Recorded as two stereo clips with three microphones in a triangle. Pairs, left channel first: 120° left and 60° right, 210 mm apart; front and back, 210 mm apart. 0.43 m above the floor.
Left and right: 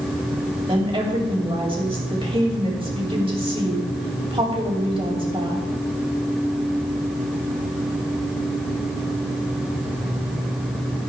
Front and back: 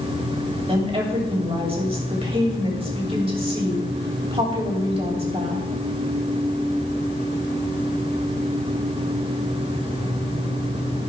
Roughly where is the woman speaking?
Behind right.